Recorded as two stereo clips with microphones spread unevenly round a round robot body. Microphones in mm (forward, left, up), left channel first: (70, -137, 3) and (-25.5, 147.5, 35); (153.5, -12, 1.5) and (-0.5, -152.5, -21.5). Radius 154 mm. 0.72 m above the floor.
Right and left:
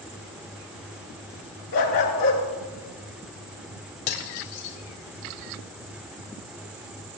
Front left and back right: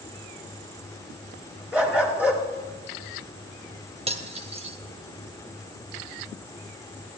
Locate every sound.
1.7 s a dog barking: 50° right, 3.5 m
4.1 s cutlery clinking: 75° right, 2 m